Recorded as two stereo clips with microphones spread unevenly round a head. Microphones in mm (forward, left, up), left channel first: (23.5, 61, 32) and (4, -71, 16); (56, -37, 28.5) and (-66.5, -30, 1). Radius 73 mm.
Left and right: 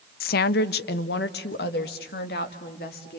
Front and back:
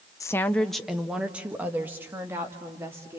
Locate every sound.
0.2 s a woman speaking: 70° left, 0.6 m; by 3.2 s 105° left, 3 m